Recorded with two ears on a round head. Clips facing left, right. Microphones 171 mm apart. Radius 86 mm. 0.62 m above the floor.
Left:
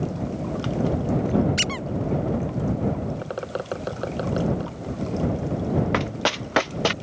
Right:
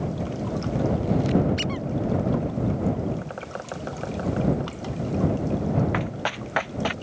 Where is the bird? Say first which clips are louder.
Left 5 dB; 50° left (ahead or behind).